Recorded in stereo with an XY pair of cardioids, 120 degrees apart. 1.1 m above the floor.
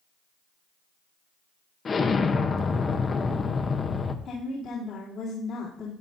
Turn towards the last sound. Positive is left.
turn(degrees=60)